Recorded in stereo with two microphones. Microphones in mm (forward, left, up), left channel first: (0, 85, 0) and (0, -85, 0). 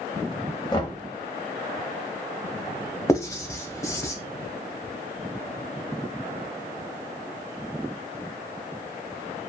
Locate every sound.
0.7 s knocking: 25° left (ahead or behind), 0.8 m
3.1 s writing: 20° left (ahead or behind), 0.6 m